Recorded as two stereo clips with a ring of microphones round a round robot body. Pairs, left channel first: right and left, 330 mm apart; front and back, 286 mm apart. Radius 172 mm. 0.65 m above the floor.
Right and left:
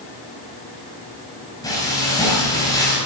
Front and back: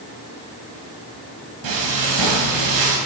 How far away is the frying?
About 4 m.